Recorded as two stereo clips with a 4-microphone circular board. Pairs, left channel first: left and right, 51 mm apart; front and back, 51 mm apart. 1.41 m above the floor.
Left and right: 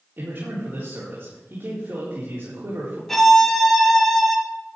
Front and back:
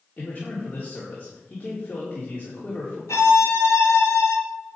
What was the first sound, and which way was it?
A man speaking, 60° right.